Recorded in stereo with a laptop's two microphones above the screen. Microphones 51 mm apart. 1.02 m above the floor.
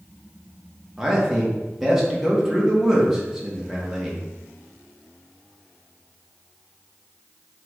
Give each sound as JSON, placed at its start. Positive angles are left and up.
{"t": 1.0, "sound": "a man speaking", "side_deg": -10, "distance_m": 1.2}